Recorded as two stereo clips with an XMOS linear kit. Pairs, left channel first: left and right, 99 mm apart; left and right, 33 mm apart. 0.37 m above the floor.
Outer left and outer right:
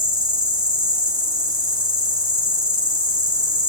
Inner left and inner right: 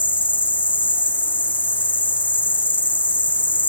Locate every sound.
0.0 s an insect: 50° left (ahead or behind), 1.5 m